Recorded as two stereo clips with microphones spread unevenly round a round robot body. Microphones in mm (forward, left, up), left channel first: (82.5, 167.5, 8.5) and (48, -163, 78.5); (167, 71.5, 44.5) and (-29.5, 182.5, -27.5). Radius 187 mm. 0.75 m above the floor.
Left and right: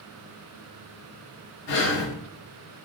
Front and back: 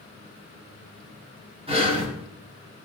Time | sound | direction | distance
1.7 | breathing | 90° left | 4.5 m